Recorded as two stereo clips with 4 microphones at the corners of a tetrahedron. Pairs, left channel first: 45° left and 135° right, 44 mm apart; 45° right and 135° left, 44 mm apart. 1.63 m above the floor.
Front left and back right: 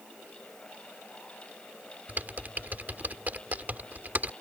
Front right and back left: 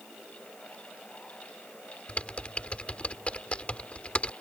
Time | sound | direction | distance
2.1 | typing on a keyboard | 100° right | ?